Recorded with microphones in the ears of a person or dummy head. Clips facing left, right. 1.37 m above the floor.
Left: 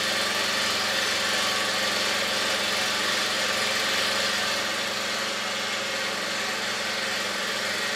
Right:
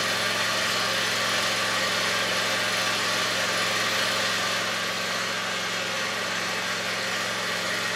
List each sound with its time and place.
0.0 s an engine running: 15° left (ahead or behind), 0.8 m